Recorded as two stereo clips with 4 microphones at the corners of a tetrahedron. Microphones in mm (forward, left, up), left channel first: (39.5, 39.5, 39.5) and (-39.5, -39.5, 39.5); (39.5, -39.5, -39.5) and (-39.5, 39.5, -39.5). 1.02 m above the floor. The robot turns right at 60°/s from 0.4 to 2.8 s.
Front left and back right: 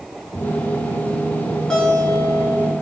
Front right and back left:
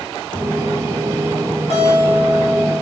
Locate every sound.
1.7 s a guitar: 40° right, 2.5 m; by 2.7 s 25° left, 2.5 m